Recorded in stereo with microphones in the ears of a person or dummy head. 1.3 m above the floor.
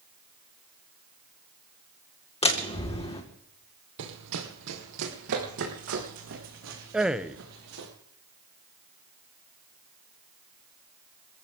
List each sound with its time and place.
2.4 s a door slam: 25° left (ahead or behind), 2.5 m
4.0 s running footsteps: 65° right (ahead or behind), 3 m; by 7.9 s 80° right, 7.5 m
6.9 s a man speaking: 5° right (ahead or behind), 0.8 m